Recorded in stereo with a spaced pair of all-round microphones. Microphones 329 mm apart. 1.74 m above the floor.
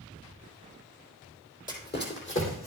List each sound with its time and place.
1.7 s running footsteps: 25° left (ahead or behind), 2.5 m; by 2.7 s 40° left (ahead or behind), 3.5 m